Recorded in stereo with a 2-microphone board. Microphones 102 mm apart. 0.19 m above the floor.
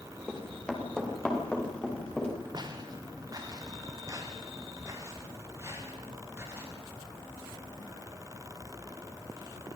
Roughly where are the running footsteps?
Centre.